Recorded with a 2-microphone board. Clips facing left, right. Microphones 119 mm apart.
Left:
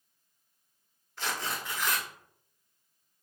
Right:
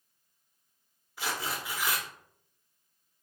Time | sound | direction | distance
1.2 | tearing paper | 5° right (ahead or behind) | 0.8 m